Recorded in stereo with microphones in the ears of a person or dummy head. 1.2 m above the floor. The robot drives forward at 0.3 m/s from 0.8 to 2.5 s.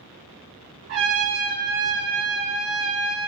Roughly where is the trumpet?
Right.